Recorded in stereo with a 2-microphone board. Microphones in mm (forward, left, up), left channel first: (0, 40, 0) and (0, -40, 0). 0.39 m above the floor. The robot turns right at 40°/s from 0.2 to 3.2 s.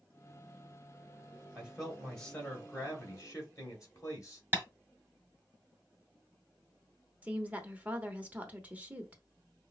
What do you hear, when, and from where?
1.6 s a man speaking: 15° right, 2 m; by 4.4 s 50° left, 2 m
4.5 s tapping: 25° right (ahead or behind), 1.7 m
7.2 s a woman speaking: 20° right (ahead or behind), 0.8 m